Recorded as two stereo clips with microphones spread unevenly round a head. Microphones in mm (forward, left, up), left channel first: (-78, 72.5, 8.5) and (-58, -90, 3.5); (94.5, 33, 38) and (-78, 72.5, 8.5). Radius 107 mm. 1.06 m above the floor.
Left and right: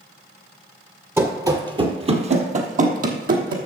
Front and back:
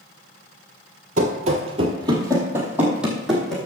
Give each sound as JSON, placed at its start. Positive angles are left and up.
{"t": 1.2, "sound": "running footsteps", "azimuth_deg": -155, "distance_m": 1.2}